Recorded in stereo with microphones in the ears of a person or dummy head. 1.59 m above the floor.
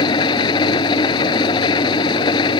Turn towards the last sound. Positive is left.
turn(degrees=30)  # may be behind; listen again after turning